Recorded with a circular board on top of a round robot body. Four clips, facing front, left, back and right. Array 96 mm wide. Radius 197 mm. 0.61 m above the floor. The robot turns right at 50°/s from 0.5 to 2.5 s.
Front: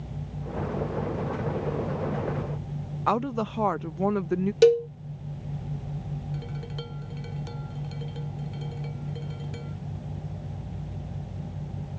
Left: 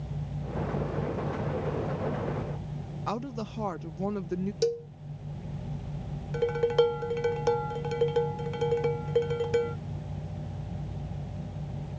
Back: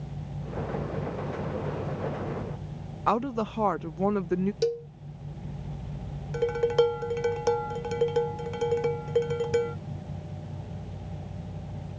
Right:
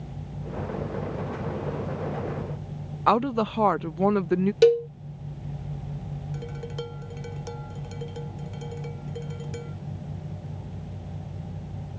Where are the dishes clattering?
140° left.